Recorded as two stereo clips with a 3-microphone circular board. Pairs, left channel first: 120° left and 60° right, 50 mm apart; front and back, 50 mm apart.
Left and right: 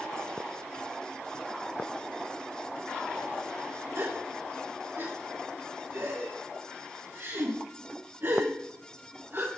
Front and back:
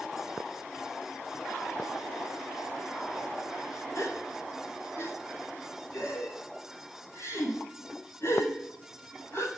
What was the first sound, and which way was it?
A gasp, 25° right.